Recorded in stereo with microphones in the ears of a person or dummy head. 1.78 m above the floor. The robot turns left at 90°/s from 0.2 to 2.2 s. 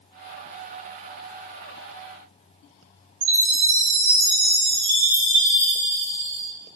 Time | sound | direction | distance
3.2 | a chime | 90° right | 0.8 m